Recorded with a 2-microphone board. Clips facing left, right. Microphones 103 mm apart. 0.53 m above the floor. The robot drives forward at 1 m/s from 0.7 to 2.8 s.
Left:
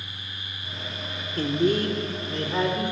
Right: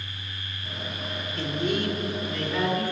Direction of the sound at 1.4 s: 40° left (ahead or behind).